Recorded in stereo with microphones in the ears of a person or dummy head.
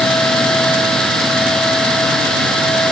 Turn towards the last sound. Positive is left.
No sound to turn to.